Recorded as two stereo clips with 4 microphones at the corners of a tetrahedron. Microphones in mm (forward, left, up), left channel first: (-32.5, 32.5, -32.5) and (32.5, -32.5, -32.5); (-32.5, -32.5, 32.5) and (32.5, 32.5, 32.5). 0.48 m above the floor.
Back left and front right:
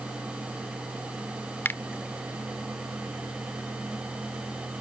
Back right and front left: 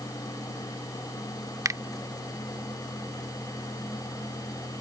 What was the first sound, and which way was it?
A finger snap, 80° left.